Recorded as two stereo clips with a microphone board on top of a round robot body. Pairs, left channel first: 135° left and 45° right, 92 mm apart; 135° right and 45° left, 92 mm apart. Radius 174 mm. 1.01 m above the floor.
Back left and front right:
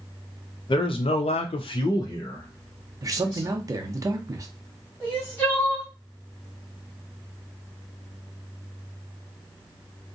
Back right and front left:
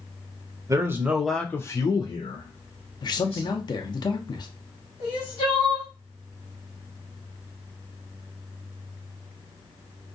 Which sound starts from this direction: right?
A man speaking, at 3.0 s.